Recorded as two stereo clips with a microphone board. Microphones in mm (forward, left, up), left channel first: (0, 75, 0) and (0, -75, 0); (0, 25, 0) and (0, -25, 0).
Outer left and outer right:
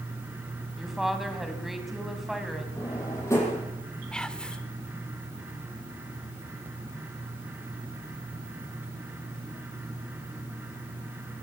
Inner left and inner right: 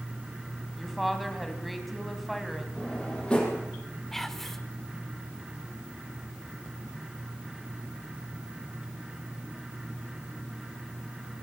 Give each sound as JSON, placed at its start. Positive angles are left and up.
{"t": 0.8, "sound": "a woman speaking", "side_deg": 0, "distance_m": 3.5}
{"t": 2.8, "sound": "a drawer", "side_deg": 20, "distance_m": 7.0}
{"t": 4.1, "sound": "whispering", "side_deg": 5, "distance_m": 1.4}